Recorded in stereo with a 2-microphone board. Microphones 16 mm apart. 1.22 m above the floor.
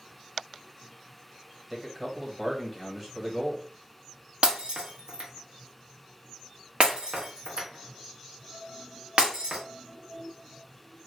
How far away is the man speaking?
About 1.2 m.